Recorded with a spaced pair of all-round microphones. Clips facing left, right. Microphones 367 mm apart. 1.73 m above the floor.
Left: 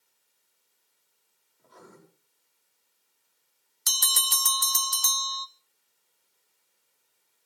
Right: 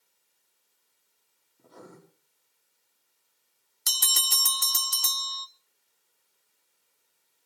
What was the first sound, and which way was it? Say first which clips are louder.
Writing: right 4 dB; 55° right (ahead or behind).